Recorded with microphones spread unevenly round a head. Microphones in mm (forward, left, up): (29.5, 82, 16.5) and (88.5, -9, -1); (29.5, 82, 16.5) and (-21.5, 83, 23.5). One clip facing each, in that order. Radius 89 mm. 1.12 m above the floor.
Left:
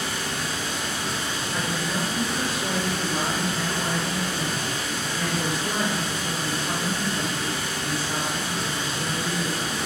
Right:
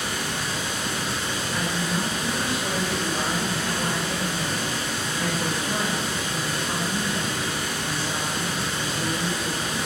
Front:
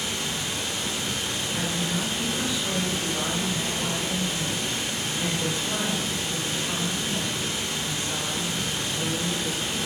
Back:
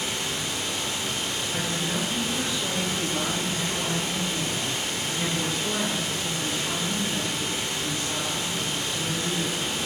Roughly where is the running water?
Behind right.